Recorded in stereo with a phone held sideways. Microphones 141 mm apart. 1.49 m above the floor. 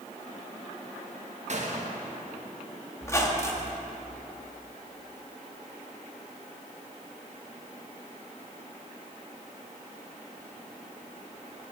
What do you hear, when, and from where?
1.5 s a gunshot: 55° right (ahead or behind), 1.4 m
3.0 s a squeak: 20° left (ahead or behind), 1.1 m